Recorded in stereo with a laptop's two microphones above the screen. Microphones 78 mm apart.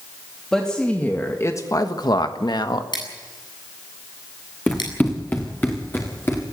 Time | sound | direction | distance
0.5 | a woman speaking | 10° left (ahead or behind) | 2.5 m
2.9 | scissors | 75° left (ahead or behind) | 7.5 m
4.7 | running footsteps | 15° left (ahead or behind) | 5 m